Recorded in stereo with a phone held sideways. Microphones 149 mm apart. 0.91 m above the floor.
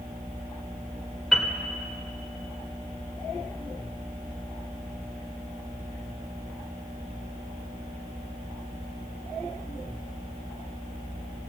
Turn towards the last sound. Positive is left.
turn(degrees=0)  # may be behind; listen again after turning